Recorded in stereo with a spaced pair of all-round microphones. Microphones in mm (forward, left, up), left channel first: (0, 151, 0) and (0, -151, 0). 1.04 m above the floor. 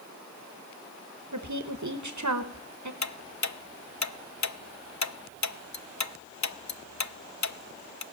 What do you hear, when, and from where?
1.3 s a woman speaking: 70° right (ahead or behind), 1.1 m
3.0 s ticking: 65° left (ahead or behind), 0.6 m